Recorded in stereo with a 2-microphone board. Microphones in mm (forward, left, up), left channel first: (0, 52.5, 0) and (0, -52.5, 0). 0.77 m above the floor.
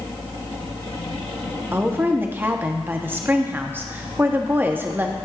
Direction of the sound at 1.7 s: 20° right (ahead or behind).